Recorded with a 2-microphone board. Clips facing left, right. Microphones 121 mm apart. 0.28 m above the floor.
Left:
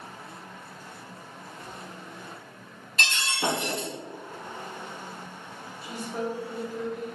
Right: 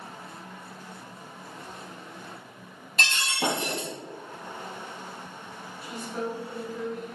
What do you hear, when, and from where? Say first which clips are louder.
3.0 s breaking glass: right 1 dB; 45° right (ahead or behind), 1.9 m
5.8 s a woman speaking: left 1 dB; 30° left (ahead or behind), 1.8 m